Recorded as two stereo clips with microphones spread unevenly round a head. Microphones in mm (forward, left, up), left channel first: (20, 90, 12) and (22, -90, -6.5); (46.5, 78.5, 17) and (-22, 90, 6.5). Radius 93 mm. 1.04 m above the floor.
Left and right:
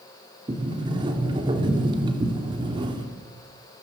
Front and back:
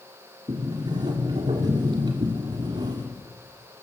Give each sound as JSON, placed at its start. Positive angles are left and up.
{"t": 0.5, "sound": "a sliding door", "azimuth_deg": -155, "distance_m": 3.0}